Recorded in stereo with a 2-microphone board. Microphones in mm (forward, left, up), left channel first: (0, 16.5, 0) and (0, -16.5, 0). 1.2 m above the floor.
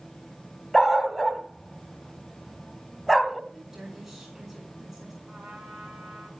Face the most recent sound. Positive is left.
turn(degrees=-65)  # may be behind; listen again after turning